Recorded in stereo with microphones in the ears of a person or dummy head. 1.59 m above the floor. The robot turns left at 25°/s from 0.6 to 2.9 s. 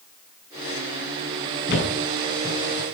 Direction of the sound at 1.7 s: 55° left (ahead or behind).